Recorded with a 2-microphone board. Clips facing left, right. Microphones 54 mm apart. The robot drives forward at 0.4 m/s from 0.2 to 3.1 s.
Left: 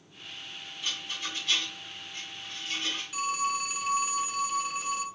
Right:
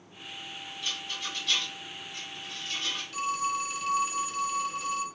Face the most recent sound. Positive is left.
turn(degrees=10)  # may be behind; listen again after turning